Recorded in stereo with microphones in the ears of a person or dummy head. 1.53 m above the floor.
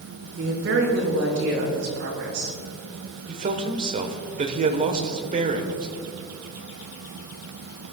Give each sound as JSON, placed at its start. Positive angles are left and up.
{"t": 0.4, "sound": "a woman speaking", "side_deg": -75, "distance_m": 5.0}
{"t": 3.3, "sound": "a man speaking", "side_deg": -40, "distance_m": 1.2}